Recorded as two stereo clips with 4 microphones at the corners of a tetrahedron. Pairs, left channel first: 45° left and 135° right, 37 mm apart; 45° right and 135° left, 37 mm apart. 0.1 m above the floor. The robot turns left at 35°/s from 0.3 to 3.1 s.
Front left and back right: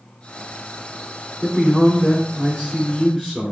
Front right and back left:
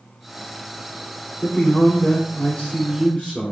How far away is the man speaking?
About 1.9 m.